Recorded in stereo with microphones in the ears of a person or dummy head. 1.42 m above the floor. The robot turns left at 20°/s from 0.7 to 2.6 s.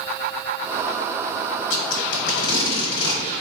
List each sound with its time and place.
1.7 s tape being pulled: 75° left (ahead or behind), 1.2 m; by 3.2 s 65° left (ahead or behind), 1.2 m